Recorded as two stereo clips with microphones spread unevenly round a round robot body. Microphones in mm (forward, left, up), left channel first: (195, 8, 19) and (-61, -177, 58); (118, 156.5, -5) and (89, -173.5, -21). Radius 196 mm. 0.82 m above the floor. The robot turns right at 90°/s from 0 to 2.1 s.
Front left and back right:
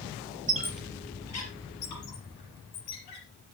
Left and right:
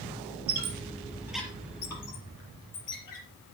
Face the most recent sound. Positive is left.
turn(degrees=60)